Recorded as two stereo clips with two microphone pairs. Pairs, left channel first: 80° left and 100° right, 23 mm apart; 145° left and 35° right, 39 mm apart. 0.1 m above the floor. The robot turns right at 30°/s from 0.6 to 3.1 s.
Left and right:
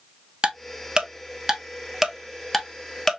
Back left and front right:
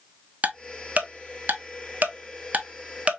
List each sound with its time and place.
0.4 s ticking: 70° right, 1.0 m; by 3.2 s 5° left, 1.0 m